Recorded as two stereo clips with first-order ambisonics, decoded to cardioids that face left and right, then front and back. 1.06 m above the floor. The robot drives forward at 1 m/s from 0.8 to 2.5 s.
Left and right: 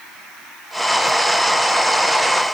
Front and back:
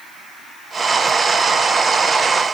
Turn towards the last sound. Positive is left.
No sound to turn to.